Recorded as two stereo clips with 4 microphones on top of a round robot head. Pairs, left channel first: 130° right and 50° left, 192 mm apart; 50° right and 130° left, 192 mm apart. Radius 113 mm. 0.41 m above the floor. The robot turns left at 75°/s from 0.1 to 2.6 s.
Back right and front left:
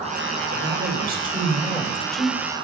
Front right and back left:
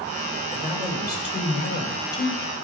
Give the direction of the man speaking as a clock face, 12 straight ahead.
10 o'clock.